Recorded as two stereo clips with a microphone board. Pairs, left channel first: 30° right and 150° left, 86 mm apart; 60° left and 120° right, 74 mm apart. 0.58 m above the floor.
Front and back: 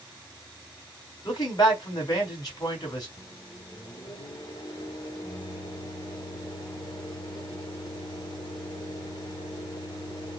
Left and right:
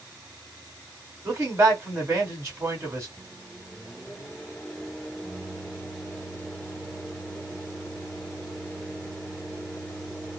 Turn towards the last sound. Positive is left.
turn(degrees=-25)